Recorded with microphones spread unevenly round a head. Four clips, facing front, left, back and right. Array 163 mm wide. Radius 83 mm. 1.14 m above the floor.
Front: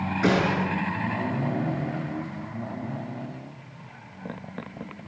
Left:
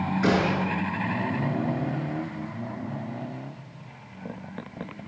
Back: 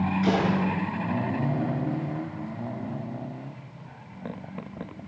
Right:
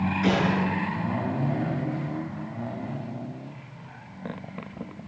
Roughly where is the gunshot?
Ahead left.